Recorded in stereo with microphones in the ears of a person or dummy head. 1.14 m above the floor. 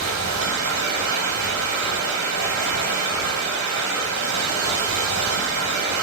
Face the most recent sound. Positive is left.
turn(degrees=-75)  # may be behind; listen again after turning